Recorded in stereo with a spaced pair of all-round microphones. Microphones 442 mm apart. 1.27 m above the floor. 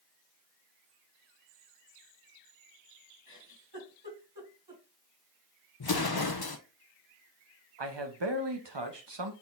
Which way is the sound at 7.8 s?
70° right (ahead or behind).